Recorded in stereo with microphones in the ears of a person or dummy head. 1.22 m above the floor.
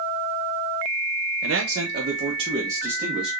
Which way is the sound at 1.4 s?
70° right (ahead or behind).